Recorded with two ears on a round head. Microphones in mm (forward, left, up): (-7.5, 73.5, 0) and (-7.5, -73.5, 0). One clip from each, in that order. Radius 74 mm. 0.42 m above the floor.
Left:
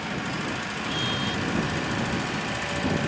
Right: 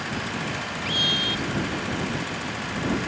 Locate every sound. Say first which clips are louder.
0.8 s a scream: right 7 dB; 55° right (ahead or behind)